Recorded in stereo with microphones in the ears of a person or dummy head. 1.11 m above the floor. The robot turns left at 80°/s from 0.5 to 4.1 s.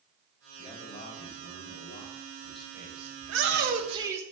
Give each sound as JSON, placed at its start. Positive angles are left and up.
{"t": 0.6, "sound": "a man speaking", "azimuth_deg": 165, "distance_m": 2.5}
{"t": 3.2, "sound": "a shout", "azimuth_deg": -95, "distance_m": 1.1}